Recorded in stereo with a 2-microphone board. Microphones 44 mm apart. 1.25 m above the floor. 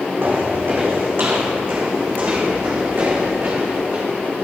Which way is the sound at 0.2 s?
55° right (ahead or behind).